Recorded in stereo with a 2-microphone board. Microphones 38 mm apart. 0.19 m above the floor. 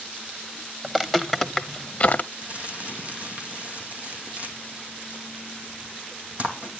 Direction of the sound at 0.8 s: 10° right (ahead or behind).